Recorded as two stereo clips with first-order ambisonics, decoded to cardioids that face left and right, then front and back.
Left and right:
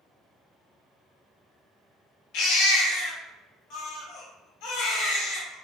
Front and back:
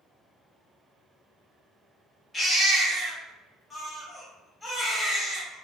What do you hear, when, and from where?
2.3 s a baby crying: 75° left, 0.7 m